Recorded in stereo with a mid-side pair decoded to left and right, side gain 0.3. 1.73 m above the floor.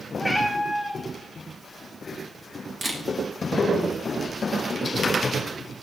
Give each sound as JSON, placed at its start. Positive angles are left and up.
{"t": 0.2, "sound": "a cat meowing", "azimuth_deg": 0, "distance_m": 3.0}
{"t": 2.8, "sound": "a camera shutter", "azimuth_deg": -30, "distance_m": 3.5}